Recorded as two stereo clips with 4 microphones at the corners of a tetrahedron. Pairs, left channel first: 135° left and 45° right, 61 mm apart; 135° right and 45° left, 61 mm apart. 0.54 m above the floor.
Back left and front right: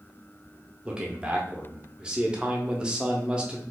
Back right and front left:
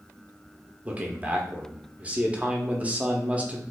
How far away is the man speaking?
About 0.7 m.